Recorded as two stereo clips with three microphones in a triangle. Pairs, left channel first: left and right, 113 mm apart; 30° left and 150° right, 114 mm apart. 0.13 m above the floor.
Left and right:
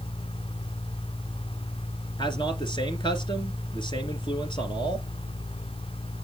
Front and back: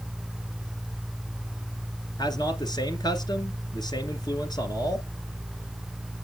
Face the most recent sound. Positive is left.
turn(degrees=65)